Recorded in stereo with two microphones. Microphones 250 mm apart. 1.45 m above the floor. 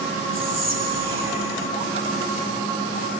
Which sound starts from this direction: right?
Whispering, at 0.3 s.